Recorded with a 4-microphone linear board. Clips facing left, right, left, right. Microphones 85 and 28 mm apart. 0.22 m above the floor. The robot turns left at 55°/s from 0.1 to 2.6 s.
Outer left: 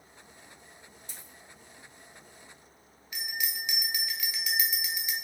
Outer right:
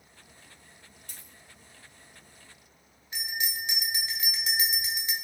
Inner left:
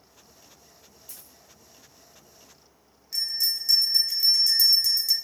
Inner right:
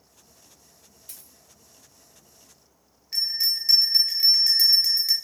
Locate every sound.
1.1 s a dropped coin: 55° right (ahead or behind), 0.7 m; by 1.3 s 45° right (ahead or behind), 0.7 m
3.1 s a bell: 35° right (ahead or behind), 0.5 m